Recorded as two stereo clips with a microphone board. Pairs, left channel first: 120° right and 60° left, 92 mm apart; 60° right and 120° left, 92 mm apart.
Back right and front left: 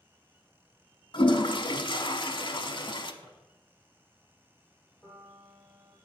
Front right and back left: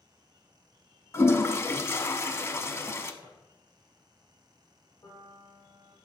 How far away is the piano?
About 3 m.